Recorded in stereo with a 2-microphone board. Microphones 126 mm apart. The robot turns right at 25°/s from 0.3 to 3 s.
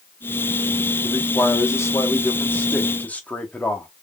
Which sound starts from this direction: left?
A man speaking, at 1.0 s.